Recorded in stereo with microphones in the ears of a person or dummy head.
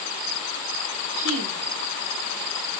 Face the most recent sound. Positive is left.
turn(degrees=-70)  # may be behind; listen again after turning